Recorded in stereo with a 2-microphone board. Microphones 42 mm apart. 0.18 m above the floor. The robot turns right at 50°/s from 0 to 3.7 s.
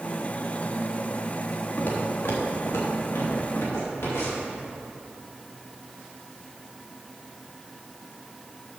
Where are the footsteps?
40° left (ahead or behind), 3.5 m; by 4.5 s 65° left (ahead or behind), 6.5 m.